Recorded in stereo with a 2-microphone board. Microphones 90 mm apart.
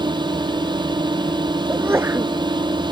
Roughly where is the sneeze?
Right.